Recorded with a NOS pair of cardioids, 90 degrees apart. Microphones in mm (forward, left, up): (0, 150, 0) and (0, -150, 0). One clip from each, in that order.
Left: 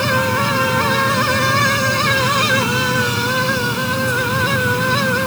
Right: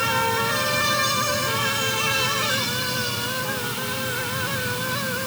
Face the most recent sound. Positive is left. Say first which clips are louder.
# left 5 dB
turn(degrees=70)